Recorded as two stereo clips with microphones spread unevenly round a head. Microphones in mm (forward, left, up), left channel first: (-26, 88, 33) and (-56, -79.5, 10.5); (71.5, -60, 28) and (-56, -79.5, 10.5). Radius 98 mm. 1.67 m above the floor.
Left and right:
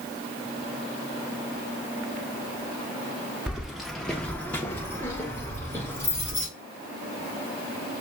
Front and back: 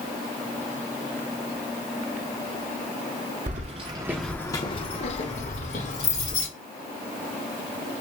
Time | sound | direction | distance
3.5 | keys jangling | 170° left | 1.0 m